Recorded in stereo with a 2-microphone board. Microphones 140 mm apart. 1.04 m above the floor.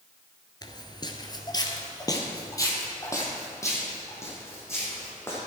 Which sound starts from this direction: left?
Footsteps, at 0.6 s.